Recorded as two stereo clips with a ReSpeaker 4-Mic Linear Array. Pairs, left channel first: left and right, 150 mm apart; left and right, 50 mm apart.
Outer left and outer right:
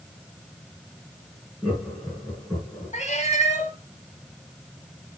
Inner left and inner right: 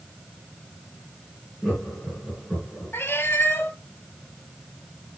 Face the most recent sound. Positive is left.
turn(degrees=50)  # may be behind; listen again after turning